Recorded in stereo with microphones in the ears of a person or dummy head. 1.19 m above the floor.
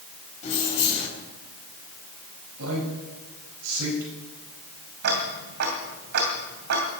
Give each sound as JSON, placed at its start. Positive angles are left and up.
{"t": 0.4, "sound": "keys jangling", "side_deg": 40, "distance_m": 5.0}
{"t": 2.6, "sound": "a man speaking", "side_deg": -85, "distance_m": 5.0}
{"t": 5.0, "sound": "ticking", "side_deg": -55, "distance_m": 2.5}